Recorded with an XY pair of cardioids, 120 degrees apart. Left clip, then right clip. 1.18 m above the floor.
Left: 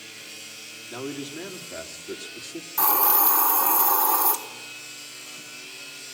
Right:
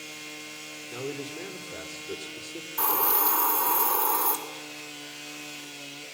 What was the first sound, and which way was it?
A man speaking, 70° left.